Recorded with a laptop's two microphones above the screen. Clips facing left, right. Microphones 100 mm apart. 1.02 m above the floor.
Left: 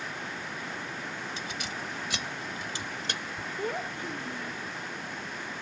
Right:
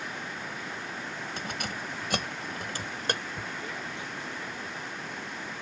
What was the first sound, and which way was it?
Keys jangling, 55° right (ahead or behind).